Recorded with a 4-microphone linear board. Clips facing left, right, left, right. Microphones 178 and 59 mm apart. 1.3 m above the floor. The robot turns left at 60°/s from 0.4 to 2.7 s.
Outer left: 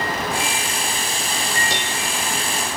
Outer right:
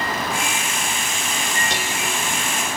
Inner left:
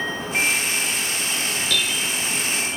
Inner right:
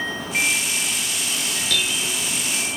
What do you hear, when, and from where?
1.7 s dishes clattering: centre (ahead or behind); by 2.2 s 30° right (ahead or behind)